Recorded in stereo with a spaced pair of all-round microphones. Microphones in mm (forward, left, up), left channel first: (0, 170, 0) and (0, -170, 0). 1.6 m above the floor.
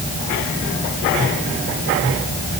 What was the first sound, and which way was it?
Only background noise.